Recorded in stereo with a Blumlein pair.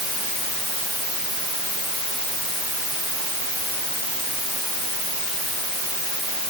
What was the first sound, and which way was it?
Only background noise.